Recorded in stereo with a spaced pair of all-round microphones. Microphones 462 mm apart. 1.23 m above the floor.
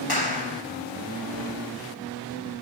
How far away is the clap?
About 5 m.